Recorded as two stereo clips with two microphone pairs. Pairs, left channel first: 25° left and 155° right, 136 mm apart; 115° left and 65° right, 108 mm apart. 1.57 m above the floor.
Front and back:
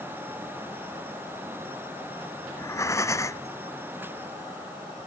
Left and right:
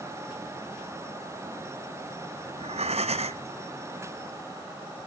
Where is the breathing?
45° right, 0.6 m.